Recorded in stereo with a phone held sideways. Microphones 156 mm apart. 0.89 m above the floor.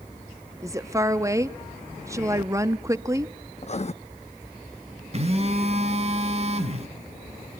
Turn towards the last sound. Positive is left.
turn(degrees=-40)  # may be behind; listen again after turning